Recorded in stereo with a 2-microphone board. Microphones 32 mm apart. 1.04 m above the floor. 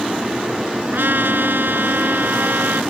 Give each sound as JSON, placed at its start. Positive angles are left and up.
{"t": 0.9, "sound": "a trumpet", "side_deg": -75}